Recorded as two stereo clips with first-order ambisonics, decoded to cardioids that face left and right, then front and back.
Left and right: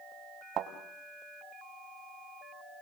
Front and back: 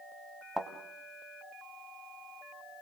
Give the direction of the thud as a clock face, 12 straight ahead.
3 o'clock.